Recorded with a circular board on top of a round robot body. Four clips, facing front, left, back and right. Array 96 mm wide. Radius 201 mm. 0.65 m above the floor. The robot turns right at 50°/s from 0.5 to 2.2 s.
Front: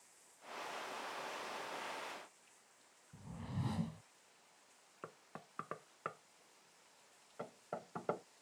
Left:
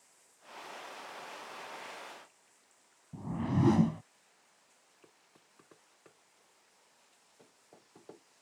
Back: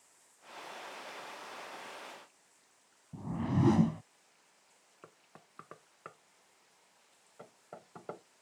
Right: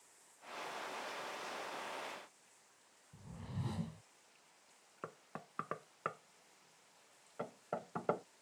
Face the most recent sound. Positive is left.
turn(degrees=-70)